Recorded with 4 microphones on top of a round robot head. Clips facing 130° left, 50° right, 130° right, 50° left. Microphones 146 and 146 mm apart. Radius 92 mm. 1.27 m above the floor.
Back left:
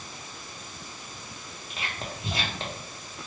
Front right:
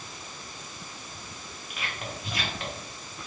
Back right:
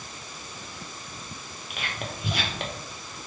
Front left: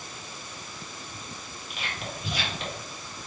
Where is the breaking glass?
I don't hear breaking glass.